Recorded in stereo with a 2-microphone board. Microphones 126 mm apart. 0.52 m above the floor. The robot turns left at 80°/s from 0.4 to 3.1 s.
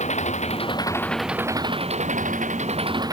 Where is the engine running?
65° left; by 3.1 s 150° right.